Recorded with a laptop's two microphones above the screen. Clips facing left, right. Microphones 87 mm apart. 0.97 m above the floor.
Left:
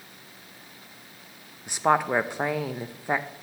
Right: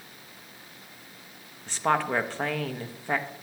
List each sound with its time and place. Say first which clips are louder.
1.7 s a woman speaking: left 3 dB; 15° left (ahead or behind), 0.7 m